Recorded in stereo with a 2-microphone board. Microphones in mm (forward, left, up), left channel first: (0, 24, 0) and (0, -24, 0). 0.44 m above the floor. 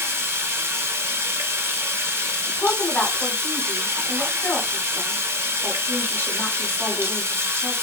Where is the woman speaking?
45° left (ahead or behind), 1.2 m.